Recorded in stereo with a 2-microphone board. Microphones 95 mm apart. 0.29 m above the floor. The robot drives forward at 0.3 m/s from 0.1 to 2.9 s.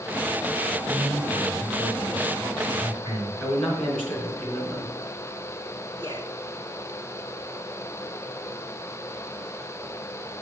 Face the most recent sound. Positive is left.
turn(degrees=-55)  # may be behind; listen again after turning